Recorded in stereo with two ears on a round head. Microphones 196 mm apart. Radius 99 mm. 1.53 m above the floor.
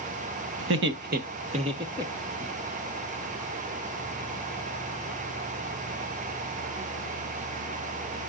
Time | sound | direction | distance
0.6 | laughter | 60° right (ahead or behind) | 1.2 m